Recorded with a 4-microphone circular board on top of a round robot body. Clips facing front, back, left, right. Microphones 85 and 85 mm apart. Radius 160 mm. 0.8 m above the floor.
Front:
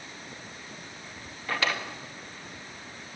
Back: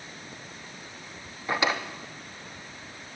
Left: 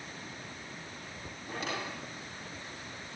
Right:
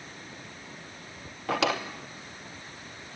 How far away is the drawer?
About 0.8 m.